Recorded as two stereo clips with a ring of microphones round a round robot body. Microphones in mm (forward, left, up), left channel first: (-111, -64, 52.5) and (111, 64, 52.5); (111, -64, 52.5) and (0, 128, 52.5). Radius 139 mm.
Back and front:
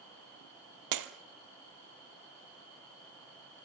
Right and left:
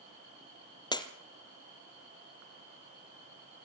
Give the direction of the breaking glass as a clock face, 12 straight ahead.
12 o'clock.